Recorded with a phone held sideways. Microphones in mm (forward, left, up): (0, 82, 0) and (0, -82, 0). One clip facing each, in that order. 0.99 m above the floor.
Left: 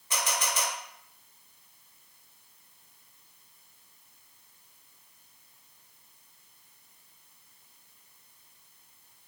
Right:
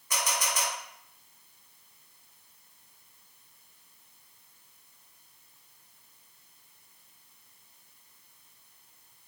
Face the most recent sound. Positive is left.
turn(degrees=25)  # may be behind; listen again after turning